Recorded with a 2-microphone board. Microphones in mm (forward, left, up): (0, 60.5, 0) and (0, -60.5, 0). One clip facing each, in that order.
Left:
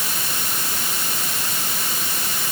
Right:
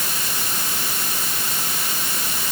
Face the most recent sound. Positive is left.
No sound to turn to.